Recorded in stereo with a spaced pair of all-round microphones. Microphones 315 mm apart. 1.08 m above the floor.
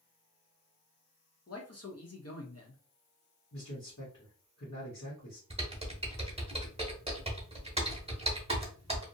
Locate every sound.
1.5 s a man speaking: 50° left (ahead or behind), 0.8 m
3.5 s a man speaking: 60° left (ahead or behind), 1.2 m
5.5 s typing on a keyboard: 20° right (ahead or behind), 0.9 m